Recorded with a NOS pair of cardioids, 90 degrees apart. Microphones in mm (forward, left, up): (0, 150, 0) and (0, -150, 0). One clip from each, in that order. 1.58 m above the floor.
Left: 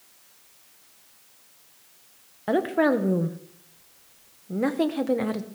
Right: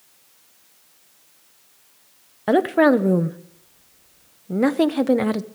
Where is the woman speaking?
35° right, 0.9 m.